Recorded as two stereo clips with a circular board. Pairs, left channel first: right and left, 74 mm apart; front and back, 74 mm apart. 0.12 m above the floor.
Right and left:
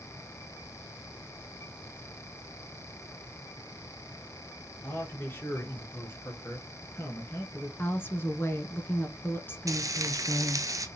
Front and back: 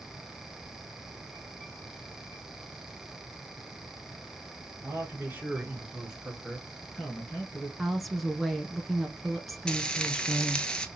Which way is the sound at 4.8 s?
140° right.